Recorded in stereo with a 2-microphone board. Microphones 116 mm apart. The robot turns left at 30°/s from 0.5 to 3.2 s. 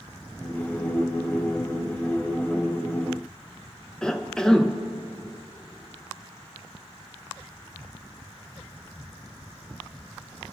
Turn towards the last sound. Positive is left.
turn(degrees=5)  # may be behind; listen again after turning